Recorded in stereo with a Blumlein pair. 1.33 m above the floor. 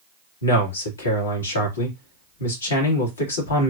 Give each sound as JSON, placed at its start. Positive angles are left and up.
{"t": 0.4, "sound": "a man speaking", "azimuth_deg": 70, "distance_m": 2.5}